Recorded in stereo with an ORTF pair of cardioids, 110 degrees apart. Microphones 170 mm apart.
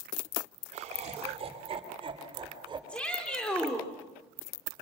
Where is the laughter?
45° right, 2.5 m; by 2.8 s 30° right, 4.5 m.